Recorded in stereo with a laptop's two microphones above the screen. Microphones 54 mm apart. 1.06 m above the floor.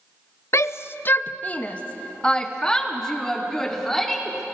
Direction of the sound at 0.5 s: 60° left (ahead or behind).